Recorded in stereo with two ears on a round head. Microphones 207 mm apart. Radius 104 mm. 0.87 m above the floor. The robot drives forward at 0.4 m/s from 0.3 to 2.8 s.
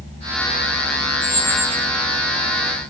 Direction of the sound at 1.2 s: 10° left (ahead or behind).